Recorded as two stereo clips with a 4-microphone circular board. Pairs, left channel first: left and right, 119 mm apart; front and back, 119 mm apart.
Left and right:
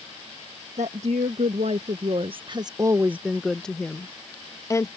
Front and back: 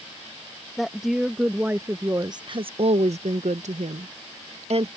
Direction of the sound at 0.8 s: 90° right.